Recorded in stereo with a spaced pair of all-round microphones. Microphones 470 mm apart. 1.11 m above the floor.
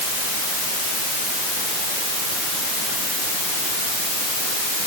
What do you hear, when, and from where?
Only background noise.